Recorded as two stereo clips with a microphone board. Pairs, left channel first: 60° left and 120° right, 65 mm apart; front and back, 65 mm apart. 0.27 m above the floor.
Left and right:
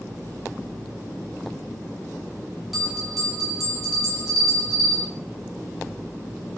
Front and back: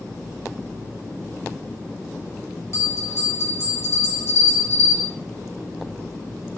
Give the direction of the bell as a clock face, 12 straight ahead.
1 o'clock.